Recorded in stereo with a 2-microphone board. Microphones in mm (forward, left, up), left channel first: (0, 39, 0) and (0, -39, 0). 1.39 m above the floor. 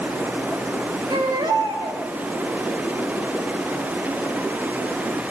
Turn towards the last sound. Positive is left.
turn(degrees=-85)